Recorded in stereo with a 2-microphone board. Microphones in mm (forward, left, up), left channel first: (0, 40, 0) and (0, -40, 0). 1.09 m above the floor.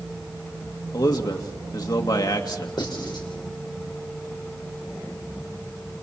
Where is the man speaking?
55° left (ahead or behind), 2 m.